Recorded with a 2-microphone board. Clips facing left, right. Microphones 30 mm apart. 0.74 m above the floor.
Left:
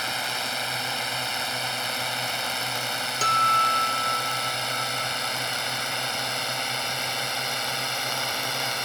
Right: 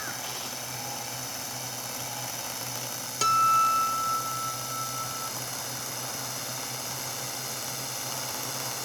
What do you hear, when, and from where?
0.0 s a drone: 60° left (ahead or behind); by 8.9 s 50° left (ahead or behind)
3.2 s a guitar: 5° left (ahead or behind)